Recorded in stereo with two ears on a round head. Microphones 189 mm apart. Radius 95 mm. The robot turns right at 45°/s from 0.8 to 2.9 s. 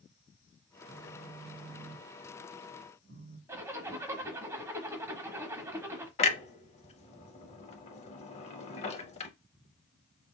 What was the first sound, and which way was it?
A phone buzzing, 55° right.